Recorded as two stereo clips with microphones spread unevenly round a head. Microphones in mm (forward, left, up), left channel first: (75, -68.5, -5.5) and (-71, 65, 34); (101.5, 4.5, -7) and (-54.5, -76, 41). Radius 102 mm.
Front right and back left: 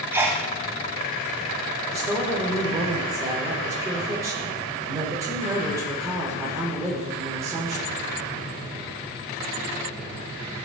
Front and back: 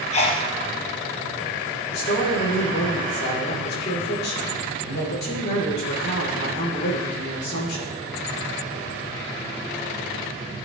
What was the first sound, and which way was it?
A sneeze, 50° left.